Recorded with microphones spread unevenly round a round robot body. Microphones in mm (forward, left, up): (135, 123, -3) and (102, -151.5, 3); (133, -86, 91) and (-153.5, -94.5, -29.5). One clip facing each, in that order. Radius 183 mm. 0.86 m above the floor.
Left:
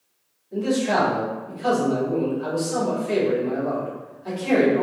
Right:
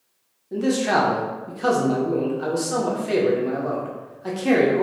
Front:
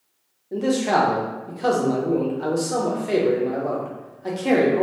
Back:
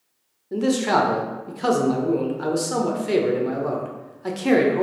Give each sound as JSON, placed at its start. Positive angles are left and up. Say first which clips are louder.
{"t": 0.5, "sound": "a man speaking", "louder": "right 1 dB, even", "azimuth_deg": -130, "distance_m": 0.6}